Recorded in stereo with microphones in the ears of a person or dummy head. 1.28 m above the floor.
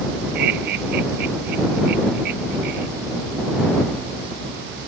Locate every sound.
0.3 s laughter: 55° right (ahead or behind)